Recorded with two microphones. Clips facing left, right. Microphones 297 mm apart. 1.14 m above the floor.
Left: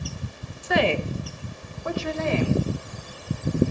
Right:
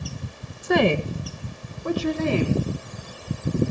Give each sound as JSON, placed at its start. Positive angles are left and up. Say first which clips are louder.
{"t": 0.6, "sound": "a woman speaking", "louder": "right 3 dB", "side_deg": -50, "distance_m": 0.9}